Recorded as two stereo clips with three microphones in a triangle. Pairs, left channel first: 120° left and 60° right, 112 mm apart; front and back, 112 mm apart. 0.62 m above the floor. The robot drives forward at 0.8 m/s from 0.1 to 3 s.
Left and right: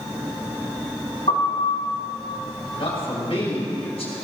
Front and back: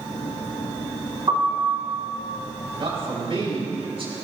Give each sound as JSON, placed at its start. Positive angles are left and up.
{"t": 1.3, "sound": "a piano", "azimuth_deg": 135, "distance_m": 5.0}
{"t": 2.8, "sound": "a man speaking", "azimuth_deg": 145, "distance_m": 5.0}